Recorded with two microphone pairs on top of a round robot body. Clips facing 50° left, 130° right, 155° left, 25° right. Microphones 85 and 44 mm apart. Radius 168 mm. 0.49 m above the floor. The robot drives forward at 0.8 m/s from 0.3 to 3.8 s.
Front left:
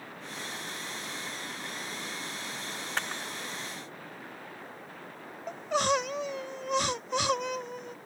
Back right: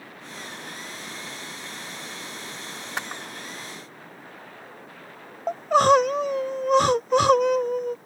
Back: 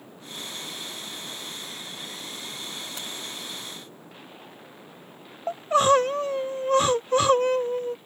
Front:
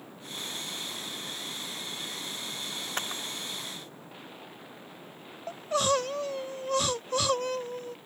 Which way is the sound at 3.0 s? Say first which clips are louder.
Back right 2 dB, front 2 dB; 65° right.